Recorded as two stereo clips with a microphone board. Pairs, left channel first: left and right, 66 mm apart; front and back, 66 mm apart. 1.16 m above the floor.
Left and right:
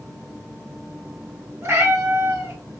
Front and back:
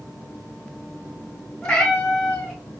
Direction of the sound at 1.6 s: 70° right.